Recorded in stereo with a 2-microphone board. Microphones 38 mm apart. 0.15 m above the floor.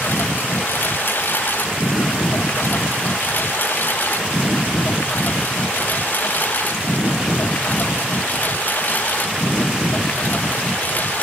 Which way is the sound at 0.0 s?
60° left (ahead or behind).